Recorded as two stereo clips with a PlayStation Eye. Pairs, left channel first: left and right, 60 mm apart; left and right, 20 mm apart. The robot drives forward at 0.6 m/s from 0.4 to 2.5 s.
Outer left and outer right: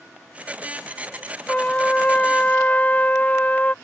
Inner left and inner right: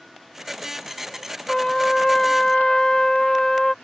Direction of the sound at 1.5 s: 20° left (ahead or behind).